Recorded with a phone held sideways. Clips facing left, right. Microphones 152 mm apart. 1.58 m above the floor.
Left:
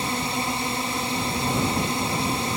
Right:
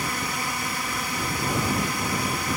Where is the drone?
30° left (ahead or behind).